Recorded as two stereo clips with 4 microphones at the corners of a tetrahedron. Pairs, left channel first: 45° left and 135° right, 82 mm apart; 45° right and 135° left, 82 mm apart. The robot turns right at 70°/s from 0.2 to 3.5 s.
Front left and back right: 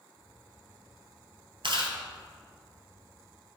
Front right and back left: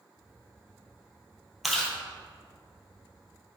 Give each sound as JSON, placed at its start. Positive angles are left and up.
{"t": 1.6, "sound": "chewing", "azimuth_deg": -140, "distance_m": 1.7}